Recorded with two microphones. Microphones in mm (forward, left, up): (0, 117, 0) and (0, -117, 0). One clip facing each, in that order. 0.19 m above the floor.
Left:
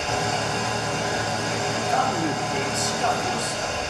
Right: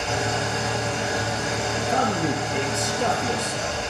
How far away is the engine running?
About 7.5 m.